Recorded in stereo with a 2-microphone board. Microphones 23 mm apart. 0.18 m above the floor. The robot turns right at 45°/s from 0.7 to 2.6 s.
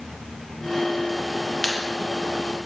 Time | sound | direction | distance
1.6 | a clap | 25° left (ahead or behind) | 4 m